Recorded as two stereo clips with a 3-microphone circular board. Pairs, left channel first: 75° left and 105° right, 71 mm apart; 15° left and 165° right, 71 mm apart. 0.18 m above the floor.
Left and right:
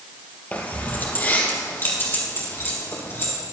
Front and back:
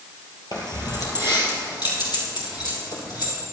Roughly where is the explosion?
No explosion in this recording.